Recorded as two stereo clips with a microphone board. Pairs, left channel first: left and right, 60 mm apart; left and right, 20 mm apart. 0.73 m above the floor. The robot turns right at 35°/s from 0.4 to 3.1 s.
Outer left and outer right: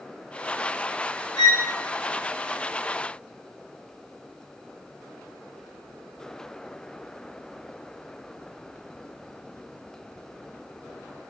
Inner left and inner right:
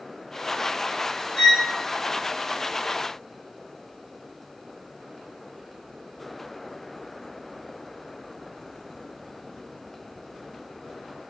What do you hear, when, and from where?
1.4 s a violin: 60° left (ahead or behind), 1.5 m; by 1.7 s 70° left (ahead or behind), 1.5 m